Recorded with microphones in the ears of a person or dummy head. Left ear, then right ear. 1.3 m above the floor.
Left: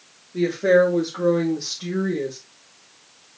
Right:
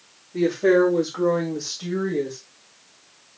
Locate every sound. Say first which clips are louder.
0.3 s a woman speaking: left 1 dB; 85° right, 3 m; by 2.4 s 50° right (ahead or behind), 2 m